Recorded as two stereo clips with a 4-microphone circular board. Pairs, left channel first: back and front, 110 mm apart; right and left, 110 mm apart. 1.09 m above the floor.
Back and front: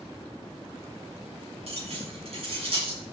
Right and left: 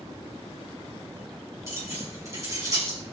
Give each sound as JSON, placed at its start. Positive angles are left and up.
{"t": 1.7, "sound": "keys jangling", "azimuth_deg": 25, "distance_m": 6.5}